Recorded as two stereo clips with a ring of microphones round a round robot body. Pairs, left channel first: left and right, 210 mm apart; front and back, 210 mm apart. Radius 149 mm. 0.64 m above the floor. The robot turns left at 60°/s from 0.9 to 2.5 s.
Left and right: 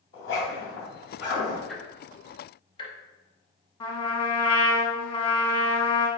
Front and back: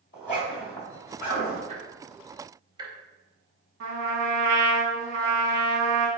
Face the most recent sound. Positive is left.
turn(degrees=155)